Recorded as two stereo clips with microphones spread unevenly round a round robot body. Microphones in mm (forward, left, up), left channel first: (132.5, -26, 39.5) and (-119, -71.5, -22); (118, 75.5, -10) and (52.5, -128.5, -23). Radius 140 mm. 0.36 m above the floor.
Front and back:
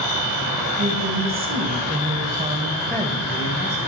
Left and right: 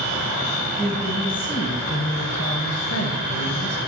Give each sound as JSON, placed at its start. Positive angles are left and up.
{"t": 0.8, "sound": "a woman speaking", "azimuth_deg": 155, "distance_m": 2.5}